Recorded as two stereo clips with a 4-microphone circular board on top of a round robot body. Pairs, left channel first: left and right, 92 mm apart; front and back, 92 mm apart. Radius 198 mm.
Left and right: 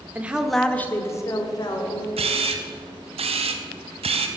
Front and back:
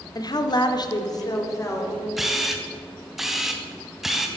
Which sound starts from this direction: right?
A camera shutter, at 2.2 s.